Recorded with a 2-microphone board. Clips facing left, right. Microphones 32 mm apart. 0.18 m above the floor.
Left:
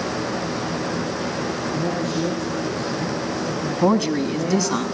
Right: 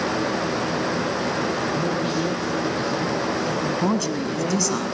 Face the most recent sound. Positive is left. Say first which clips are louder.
# left 4 dB
turn(degrees=15)  # may be behind; listen again after turning